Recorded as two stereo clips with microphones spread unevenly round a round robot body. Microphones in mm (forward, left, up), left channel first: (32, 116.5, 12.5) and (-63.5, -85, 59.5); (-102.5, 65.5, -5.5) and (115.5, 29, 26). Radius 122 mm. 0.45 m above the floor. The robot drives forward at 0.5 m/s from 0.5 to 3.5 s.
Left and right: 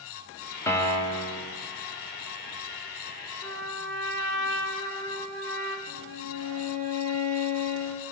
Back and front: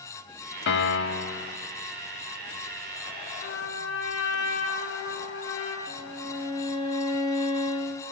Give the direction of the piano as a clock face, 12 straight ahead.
7 o'clock.